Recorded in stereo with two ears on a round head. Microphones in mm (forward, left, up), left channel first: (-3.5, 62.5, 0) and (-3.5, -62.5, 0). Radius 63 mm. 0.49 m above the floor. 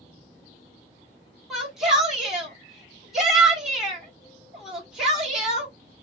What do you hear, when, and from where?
1.5 s a shout: 5° right (ahead or behind), 1.3 m